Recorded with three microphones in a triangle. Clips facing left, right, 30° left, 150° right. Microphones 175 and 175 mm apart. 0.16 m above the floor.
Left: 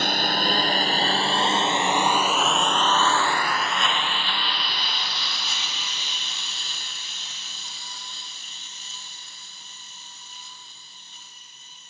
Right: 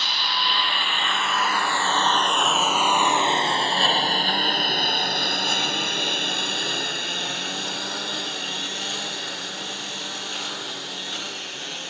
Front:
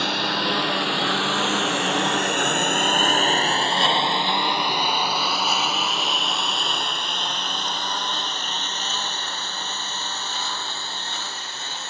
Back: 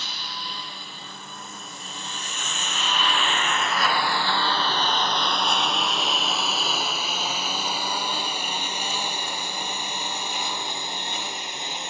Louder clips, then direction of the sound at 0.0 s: Left 5 dB, front 14 dB; 50° left.